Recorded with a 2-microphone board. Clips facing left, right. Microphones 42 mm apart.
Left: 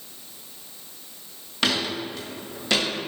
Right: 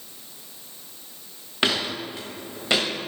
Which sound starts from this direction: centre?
Footsteps, at 1.6 s.